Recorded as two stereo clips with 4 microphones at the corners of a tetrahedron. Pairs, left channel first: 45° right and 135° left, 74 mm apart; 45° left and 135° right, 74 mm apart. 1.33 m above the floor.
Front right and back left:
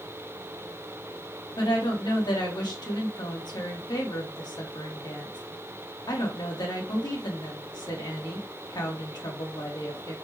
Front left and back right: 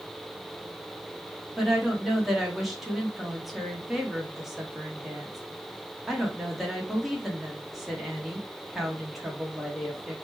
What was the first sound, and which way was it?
A woman speaking, 50° right.